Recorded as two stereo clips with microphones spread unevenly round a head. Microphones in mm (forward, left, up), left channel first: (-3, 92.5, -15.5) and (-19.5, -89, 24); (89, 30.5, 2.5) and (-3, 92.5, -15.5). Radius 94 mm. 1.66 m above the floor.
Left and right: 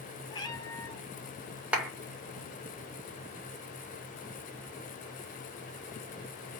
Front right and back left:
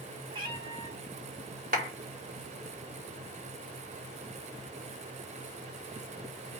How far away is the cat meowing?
About 1.4 m.